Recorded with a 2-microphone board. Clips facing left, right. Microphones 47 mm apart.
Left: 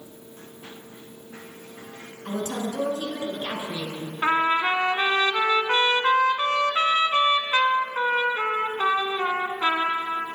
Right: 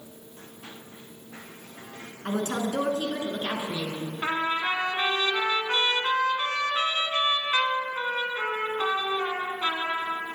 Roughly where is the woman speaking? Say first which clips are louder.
Right 1 dB; right.